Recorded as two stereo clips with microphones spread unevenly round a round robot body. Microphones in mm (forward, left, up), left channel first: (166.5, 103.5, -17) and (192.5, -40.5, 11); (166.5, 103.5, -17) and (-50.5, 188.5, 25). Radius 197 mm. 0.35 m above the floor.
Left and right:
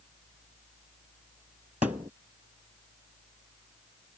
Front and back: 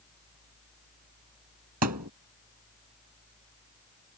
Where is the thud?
155° right.